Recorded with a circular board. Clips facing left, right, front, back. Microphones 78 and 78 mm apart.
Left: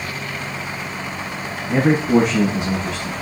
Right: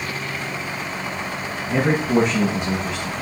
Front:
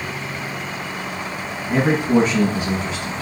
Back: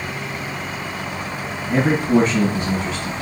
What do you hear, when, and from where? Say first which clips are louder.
1.7 s a man speaking: left 3 dB, even; 85° left, 3 m